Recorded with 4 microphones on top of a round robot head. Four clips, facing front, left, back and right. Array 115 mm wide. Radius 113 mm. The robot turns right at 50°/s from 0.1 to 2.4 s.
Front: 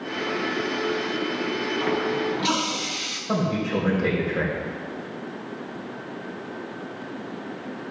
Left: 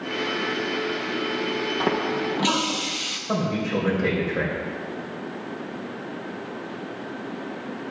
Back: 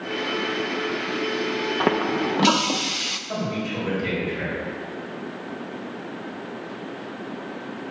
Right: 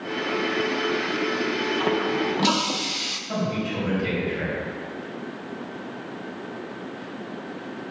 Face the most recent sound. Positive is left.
turn(degrees=45)